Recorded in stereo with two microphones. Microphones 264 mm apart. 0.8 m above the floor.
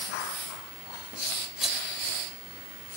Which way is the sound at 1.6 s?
Centre (ahead or behind).